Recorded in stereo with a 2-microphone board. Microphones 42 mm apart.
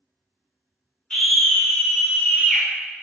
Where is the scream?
25° left (ahead or behind), 1.6 m; by 2.6 s 45° left (ahead or behind), 2.0 m.